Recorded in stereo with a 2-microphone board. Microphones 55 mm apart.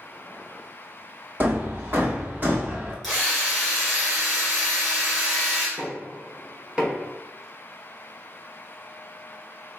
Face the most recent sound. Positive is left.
turn(degrees=-20)  # may be behind; listen again after turning